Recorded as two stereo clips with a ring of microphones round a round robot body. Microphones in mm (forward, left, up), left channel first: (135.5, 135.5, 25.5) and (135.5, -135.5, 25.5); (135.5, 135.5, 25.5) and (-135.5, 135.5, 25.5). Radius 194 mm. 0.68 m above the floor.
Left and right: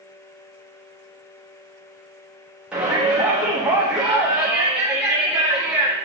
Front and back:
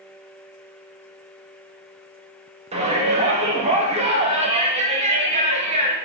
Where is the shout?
170° right, 1.2 m.